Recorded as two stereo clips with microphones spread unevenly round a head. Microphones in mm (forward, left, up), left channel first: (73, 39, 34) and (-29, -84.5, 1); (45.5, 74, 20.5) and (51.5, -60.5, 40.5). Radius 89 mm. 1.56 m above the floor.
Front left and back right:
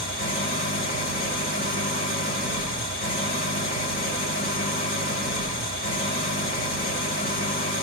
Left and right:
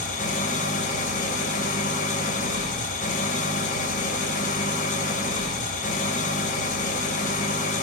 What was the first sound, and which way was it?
An engine running, 70° left.